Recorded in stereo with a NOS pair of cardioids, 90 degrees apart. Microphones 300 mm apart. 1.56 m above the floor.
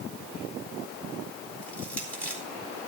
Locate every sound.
1.6 s crushing: 5° left, 4.5 m